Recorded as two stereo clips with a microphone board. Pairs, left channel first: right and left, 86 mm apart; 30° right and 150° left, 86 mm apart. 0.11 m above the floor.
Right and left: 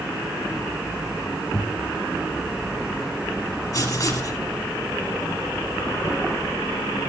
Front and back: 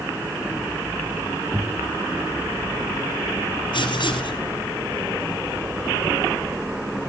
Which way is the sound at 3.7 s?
50° right.